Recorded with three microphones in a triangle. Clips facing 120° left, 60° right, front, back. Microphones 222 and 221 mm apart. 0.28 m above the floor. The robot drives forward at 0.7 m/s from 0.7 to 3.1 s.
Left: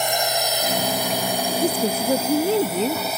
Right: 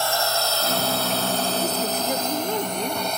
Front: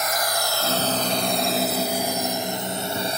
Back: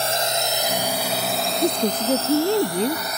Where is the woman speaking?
Straight behind.